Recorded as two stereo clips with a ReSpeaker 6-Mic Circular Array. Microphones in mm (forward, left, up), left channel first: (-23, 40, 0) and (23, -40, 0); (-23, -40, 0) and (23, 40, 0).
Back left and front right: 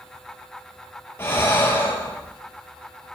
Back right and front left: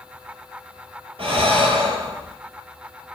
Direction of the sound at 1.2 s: 55° left.